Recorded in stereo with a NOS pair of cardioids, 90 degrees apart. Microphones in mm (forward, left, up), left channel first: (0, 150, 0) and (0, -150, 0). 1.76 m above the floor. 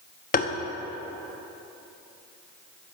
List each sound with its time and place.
0.3 s tapping: 30° left, 1.0 m